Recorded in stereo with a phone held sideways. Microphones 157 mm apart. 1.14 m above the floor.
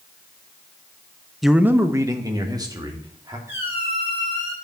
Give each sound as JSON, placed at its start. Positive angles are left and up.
{"t": 1.4, "sound": "a man speaking", "side_deg": 0, "distance_m": 0.5}
{"t": 3.5, "sound": "a squeak", "side_deg": -15, "distance_m": 5.5}